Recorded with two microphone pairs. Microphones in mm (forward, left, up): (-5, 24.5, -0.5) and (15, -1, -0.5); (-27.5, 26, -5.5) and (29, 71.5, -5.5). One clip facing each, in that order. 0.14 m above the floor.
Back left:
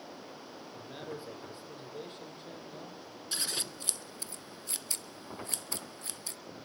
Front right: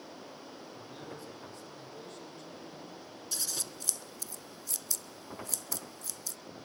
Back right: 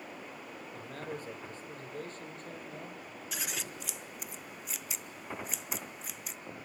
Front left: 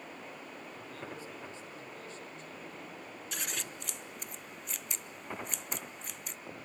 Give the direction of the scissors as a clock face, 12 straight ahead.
8 o'clock.